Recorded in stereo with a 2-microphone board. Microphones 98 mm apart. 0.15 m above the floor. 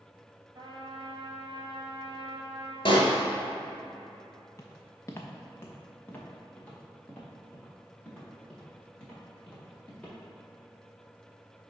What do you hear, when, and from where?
0.6 s a trumpet: 45° right (ahead or behind), 1.0 m
2.9 s a pop: 65° left (ahead or behind), 1.1 m
4.6 s footsteps: 35° left (ahead or behind), 0.7 m; by 10.2 s 10° left (ahead or behind), 4 m